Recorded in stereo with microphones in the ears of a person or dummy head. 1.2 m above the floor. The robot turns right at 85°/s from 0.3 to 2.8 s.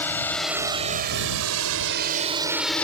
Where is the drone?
10° left (ahead or behind).